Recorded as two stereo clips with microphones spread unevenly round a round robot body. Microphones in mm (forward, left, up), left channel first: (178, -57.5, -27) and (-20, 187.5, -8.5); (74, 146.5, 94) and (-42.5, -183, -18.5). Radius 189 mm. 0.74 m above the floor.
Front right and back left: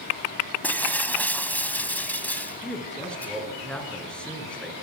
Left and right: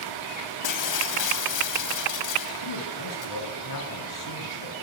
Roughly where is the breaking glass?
Ahead left.